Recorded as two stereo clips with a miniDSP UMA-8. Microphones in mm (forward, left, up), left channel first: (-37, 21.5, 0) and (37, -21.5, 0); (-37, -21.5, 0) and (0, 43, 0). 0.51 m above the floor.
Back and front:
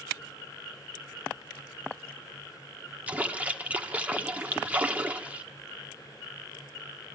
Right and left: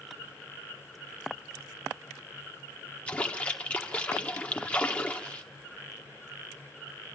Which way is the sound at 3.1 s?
75° right.